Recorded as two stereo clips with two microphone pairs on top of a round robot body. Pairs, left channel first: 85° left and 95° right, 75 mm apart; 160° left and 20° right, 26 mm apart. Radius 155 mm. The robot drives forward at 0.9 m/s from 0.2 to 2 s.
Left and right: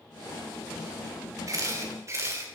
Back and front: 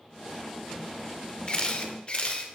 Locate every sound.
1.5 s a camera shutter: 145° right, 2 m; by 2.4 s 150° right, 2.5 m